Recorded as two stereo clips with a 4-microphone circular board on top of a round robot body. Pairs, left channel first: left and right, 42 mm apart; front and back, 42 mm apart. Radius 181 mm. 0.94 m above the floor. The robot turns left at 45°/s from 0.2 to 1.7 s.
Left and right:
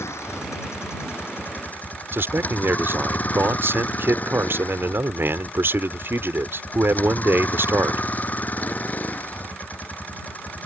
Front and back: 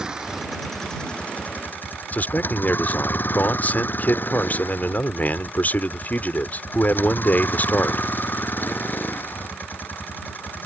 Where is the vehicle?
105° left; by 10.7 s 40° left.